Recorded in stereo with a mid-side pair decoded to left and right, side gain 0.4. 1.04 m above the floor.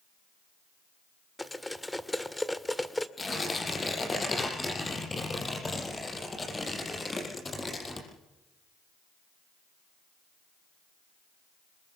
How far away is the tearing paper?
About 7 m.